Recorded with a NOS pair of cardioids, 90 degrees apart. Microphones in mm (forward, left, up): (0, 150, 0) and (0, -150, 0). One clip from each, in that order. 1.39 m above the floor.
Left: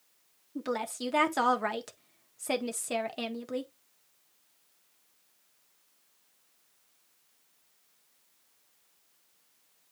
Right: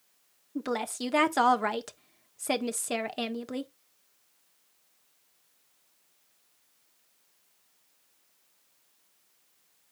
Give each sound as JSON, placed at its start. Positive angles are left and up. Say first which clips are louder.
{"t": 0.6, "sound": "a woman speaking", "louder": "right 2 dB", "azimuth_deg": -20, "distance_m": 1.4}